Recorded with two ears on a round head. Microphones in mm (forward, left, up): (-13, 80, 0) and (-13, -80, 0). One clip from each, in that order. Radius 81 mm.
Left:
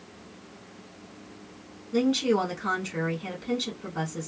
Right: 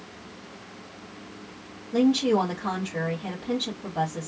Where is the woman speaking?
40° left (ahead or behind), 1.6 m.